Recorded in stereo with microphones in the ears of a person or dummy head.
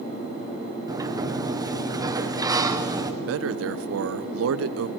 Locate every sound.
0.9 s a sliding door: 20° right (ahead or behind), 1.3 m
3.2 s a man speaking: 70° right (ahead or behind), 0.9 m